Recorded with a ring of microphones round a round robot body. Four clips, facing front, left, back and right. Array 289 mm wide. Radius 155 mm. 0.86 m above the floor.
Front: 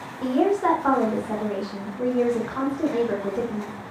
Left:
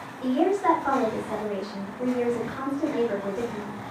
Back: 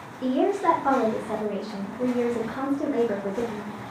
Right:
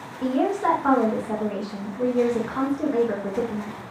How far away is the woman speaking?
About 1.3 m.